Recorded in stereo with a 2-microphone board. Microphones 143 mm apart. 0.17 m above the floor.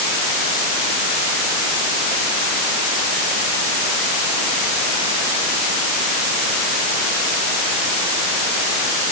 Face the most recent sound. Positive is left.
No sound to turn to.